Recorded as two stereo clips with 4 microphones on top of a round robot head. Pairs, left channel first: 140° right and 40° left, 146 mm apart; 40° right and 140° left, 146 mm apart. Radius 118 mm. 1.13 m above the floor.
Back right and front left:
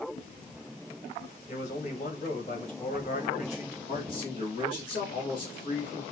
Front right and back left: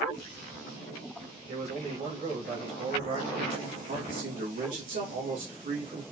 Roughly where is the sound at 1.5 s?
Behind.